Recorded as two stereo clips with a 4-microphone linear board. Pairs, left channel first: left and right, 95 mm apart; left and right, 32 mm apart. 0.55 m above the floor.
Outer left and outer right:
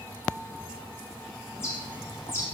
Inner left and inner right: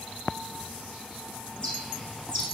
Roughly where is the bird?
Left.